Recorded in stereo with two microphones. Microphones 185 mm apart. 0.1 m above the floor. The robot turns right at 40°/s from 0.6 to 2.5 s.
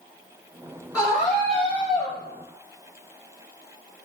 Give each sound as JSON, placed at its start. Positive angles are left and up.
{"t": 0.9, "sound": "a scream", "azimuth_deg": 35, "distance_m": 1.9}